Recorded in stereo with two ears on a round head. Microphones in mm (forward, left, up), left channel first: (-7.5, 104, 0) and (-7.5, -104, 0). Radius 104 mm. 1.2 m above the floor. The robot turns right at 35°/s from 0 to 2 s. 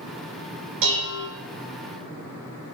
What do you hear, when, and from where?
0.8 s dishes clattering: 60° right (ahead or behind), 3.5 m; by 1.3 s 40° right (ahead or behind), 3.5 m